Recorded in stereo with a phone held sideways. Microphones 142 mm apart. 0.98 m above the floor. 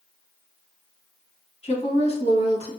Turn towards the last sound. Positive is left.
turn(degrees=45)  # may be behind; listen again after turning